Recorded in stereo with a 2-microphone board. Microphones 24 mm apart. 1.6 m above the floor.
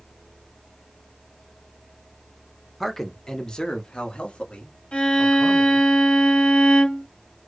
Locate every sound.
2.8 s a man speaking: 5° left (ahead or behind), 0.8 m; by 5.9 s 70° left (ahead or behind), 2 m
4.9 s a violin: 55° left (ahead or behind), 2.5 m